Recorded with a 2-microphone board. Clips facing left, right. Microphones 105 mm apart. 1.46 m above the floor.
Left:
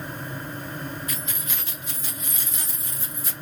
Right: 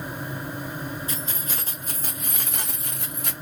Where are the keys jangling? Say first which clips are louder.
Right 2 dB; 30° right (ahead or behind), 1.5 m; by 3.3 s 65° right (ahead or behind), 1.2 m.